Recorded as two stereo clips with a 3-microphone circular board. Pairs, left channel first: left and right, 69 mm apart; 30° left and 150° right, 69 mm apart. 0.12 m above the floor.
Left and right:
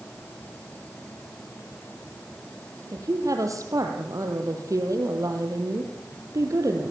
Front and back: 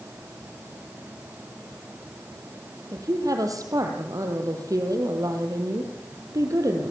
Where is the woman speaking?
120° right, 4 m.